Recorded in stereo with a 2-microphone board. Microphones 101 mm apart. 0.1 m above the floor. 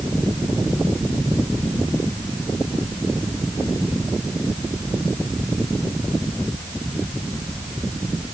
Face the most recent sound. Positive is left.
No sound to turn to.